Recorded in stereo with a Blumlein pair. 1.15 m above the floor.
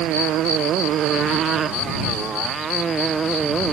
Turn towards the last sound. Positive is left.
turn(degrees=-15)